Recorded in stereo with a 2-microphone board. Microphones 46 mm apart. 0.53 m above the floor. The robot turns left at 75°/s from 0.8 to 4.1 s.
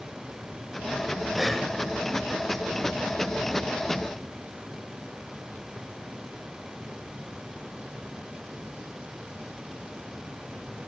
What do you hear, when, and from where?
1.3 s breathing: 10° right (ahead or behind), 0.9 m; by 1.7 s 15° left (ahead or behind), 0.9 m